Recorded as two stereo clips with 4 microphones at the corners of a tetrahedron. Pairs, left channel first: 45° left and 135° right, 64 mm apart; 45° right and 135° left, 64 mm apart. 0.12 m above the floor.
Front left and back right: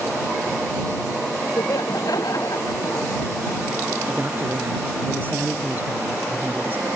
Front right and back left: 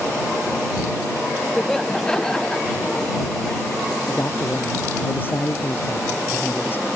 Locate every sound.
1.6 s laughter: 40° left; by 3.6 s 35° left
4.1 s a man speaking: 90° right